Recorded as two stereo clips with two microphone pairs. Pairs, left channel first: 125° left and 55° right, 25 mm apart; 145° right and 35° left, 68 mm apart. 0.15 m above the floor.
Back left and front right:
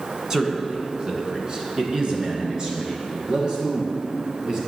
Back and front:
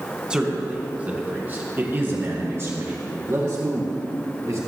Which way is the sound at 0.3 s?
25° right.